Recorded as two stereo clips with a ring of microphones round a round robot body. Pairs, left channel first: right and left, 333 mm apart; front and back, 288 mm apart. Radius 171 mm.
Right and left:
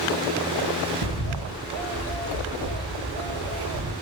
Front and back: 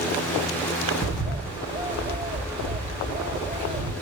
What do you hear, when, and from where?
1.0 s a bird: 110° left, 1.5 m